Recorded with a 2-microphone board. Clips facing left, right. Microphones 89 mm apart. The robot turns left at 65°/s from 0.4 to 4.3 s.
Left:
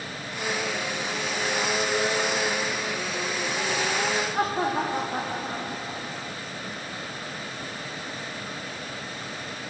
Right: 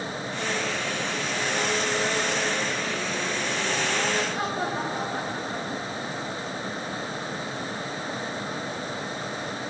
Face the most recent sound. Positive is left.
turn(degrees=60)  # may be behind; listen again after turning